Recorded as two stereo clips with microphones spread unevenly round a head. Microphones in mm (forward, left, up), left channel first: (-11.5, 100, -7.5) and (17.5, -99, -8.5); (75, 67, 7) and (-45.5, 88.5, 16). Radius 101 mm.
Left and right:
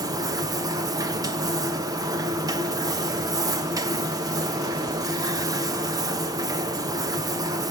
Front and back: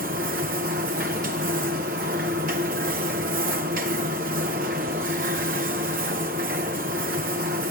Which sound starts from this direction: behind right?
A machine running, at 0.0 s.